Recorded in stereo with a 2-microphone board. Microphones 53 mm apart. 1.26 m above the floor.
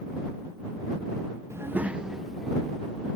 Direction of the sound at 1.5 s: 60° right (ahead or behind).